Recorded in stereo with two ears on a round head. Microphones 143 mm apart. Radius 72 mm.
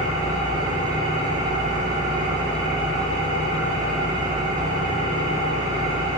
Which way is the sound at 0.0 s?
40° right (ahead or behind).